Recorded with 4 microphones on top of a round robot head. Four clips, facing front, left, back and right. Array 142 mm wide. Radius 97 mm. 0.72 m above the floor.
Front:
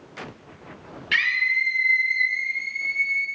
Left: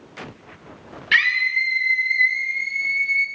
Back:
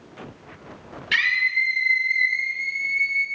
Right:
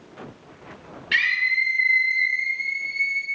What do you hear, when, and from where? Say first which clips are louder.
1.1 s a scream: left 3 dB, back 1 dB; 110° left, 3.5 m; by 3.2 s 95° left, 4.5 m